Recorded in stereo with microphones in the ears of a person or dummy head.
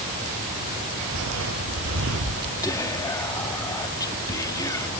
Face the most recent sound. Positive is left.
turn(degrees=20)  # may be behind; listen again after turning